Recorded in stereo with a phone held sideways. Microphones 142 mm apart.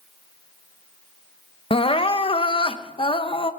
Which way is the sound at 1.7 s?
40° left (ahead or behind).